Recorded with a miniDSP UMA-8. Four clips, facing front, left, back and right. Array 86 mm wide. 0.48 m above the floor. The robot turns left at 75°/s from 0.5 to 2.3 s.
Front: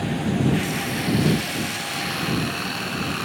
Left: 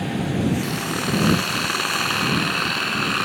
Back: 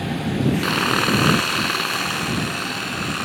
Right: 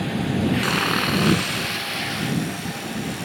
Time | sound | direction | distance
0.6 | sawing | 135° right | ?